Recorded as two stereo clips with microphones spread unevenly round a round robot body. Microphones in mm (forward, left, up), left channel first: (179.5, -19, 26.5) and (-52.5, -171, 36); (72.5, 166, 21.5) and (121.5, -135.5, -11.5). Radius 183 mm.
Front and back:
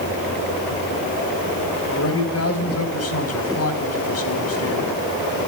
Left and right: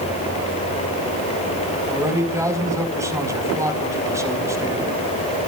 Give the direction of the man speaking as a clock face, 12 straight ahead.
12 o'clock.